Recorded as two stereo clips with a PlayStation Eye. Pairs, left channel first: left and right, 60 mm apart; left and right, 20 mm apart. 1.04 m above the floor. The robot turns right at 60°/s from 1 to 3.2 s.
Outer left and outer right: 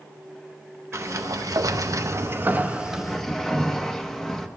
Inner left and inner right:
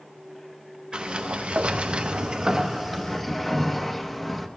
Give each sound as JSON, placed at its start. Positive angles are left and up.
{"t": 0.9, "sound": "a sliding door", "azimuth_deg": -125, "distance_m": 0.7}